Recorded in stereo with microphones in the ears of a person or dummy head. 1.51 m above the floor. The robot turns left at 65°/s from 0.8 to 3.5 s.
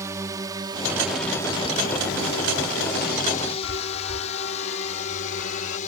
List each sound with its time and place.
0.0 s a drone: 15° right (ahead or behind); by 5.9 s 45° left (ahead or behind)
3.6 s a chime: 80° left